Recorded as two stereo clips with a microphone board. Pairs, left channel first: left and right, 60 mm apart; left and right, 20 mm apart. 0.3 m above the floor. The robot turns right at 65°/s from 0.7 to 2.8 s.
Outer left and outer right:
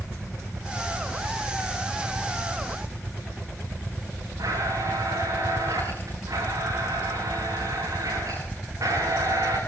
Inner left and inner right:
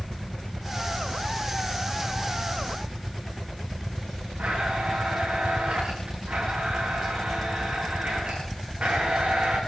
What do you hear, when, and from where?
4.4 s a blender: 85° right, 8.5 m